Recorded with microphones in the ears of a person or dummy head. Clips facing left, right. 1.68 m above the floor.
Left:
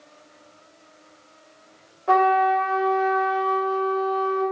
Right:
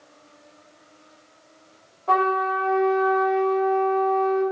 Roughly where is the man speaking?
I don't hear a man speaking.